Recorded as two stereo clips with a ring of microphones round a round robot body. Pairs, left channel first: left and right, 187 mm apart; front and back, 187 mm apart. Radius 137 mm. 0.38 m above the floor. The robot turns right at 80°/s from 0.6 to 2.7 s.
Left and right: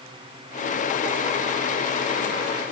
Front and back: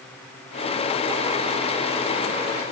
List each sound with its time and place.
Only background noise.